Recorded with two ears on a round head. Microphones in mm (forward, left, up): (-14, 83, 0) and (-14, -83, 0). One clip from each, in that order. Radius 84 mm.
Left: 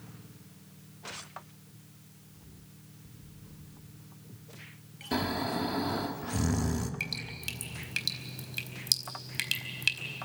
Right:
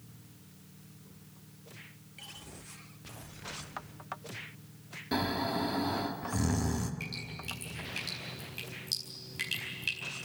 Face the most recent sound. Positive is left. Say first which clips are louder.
# left 4 dB
turn(degrees=55)  # may be behind; listen again after turning